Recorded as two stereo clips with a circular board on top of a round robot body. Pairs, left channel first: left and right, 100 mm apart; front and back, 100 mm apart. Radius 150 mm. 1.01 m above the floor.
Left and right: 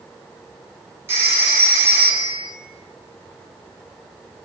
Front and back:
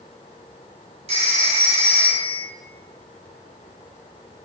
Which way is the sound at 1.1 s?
160° right.